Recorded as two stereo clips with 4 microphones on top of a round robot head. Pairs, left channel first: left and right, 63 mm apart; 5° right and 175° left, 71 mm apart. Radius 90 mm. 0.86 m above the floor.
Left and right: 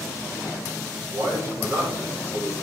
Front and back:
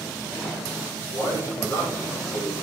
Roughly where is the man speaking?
Ahead right.